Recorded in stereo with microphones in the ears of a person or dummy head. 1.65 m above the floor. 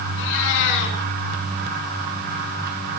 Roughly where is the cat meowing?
Left.